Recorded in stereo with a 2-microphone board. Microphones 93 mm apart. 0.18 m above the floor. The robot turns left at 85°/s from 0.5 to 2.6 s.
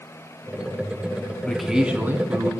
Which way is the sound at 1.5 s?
15° left.